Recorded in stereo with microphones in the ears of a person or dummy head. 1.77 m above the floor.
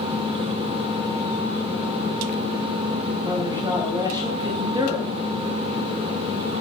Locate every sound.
3.2 s a man speaking: 20° right (ahead or behind), 1.3 m